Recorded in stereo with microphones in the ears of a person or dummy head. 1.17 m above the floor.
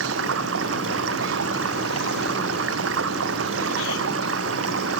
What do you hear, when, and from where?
0.0 s running water: 75° right (ahead or behind)